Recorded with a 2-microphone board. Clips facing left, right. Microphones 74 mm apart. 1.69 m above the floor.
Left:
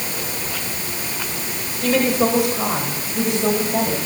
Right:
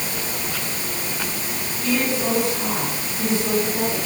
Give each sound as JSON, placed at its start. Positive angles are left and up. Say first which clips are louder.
{"t": 1.8, "sound": "a woman speaking", "louder": "left 5 dB", "side_deg": 75, "distance_m": 6.5}